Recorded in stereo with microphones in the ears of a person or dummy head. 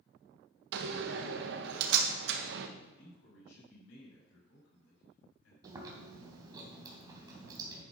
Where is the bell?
I don't hear a bell.